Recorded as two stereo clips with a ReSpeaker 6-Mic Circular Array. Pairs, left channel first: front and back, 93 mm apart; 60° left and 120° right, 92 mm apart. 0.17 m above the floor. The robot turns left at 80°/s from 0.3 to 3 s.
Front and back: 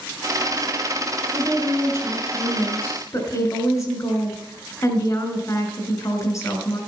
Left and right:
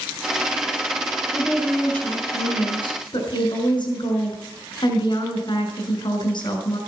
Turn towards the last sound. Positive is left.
turn(degrees=45)